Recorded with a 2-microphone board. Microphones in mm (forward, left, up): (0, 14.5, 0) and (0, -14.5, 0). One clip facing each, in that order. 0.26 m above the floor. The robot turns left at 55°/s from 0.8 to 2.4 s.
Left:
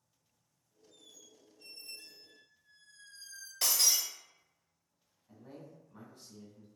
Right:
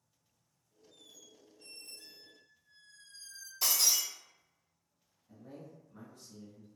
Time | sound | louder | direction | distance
0.9 | a squeak | right 1 dB | 150° right | 0.8 m
3.6 | breaking glass | even | 65° left (ahead or behind) | 1.3 m
5.3 | a man speaking | right 1 dB | 30° left (ahead or behind) | 1.3 m